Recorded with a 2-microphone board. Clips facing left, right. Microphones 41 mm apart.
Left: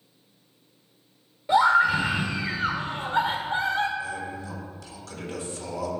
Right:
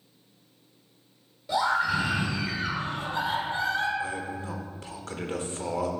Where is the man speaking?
35° right (ahead or behind), 0.9 m.